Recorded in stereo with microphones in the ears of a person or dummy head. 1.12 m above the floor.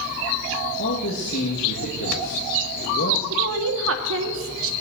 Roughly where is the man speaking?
Left.